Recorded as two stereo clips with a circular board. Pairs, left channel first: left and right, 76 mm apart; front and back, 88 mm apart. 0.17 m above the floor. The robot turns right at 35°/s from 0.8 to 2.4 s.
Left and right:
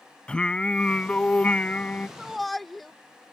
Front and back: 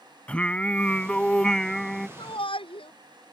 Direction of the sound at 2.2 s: 5° right.